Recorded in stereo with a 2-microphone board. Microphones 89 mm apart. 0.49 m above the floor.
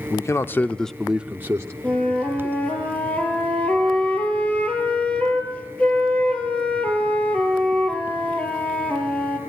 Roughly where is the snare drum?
I don't hear a snare drum.